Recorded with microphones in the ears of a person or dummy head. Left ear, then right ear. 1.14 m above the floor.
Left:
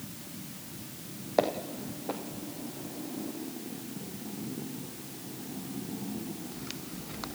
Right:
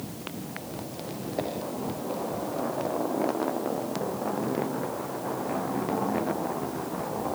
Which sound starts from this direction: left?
Footsteps, at 1.4 s.